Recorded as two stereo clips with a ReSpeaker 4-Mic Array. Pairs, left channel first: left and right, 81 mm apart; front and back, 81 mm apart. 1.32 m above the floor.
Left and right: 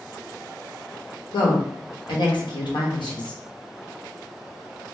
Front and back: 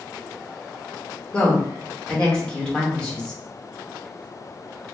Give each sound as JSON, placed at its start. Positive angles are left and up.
{"t": 1.3, "sound": "a woman speaking", "azimuth_deg": 80, "distance_m": 1.0}